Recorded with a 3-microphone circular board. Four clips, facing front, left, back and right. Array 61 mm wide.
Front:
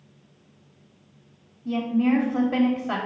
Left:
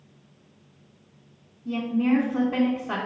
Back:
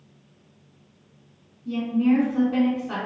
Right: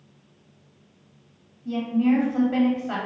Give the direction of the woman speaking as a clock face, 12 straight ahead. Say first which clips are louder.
Right 2 dB, back 1 dB; 12 o'clock.